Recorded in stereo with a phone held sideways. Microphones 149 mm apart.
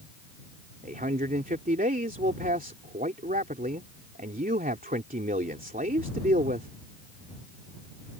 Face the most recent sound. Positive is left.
turn(degrees=-70)  # may be behind; listen again after turning